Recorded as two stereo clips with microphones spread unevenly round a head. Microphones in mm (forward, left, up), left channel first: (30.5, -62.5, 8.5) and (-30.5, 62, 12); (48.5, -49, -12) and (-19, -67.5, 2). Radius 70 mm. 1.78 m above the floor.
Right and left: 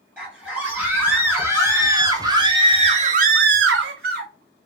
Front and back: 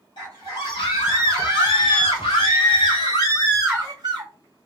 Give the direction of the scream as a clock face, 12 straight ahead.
11 o'clock.